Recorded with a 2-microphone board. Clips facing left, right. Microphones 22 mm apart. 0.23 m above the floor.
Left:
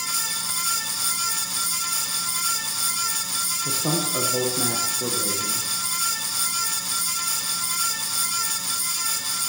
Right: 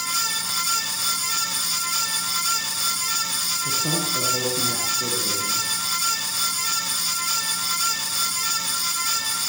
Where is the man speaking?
45° left (ahead or behind), 9.5 m.